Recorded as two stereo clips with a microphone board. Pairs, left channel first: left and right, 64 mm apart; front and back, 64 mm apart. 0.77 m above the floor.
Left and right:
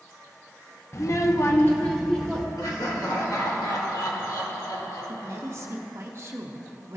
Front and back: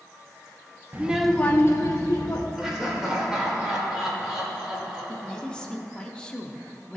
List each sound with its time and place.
0.9 s a child speaking: 120° left, 0.7 m; by 2.5 s 10° left, 1.4 m
2.6 s laughter: 100° left, 2 m
5.1 s a woman speaking: 70° right, 0.7 m